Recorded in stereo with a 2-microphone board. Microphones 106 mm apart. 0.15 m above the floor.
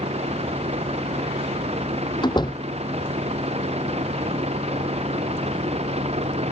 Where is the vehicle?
80° right; by 6.5 s 75° right (ahead or behind).